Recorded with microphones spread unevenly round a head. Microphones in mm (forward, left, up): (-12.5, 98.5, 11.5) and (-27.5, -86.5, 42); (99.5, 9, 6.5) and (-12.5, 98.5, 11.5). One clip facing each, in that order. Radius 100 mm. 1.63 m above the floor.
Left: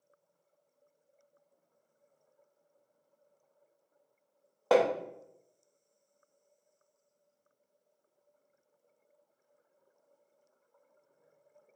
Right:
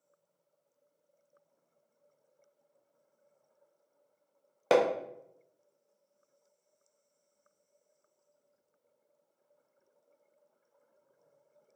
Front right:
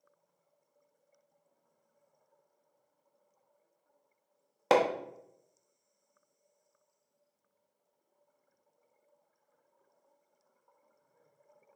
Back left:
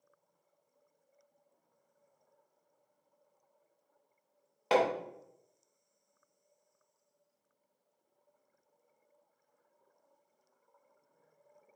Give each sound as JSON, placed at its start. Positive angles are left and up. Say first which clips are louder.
{"t": 4.7, "sound": "hammering", "louder": "even, front right 2 dB", "azimuth_deg": -60, "distance_m": 0.5}